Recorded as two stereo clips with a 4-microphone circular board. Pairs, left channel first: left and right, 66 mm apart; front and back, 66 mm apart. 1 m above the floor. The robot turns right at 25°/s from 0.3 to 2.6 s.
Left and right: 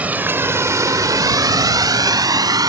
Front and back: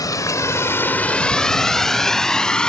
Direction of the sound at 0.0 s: 20° right.